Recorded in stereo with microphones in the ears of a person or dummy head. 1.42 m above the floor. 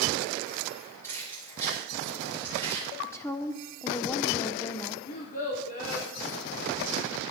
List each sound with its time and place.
1.0 s keys jangling: 15° left (ahead or behind), 5 m
3.0 s a woman speaking: 15° left (ahead or behind), 1.1 m
5.1 s a child speaking: 45° left (ahead or behind), 1.7 m